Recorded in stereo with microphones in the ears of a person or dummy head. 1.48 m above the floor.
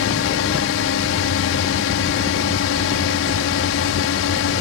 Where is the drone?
65° left (ahead or behind).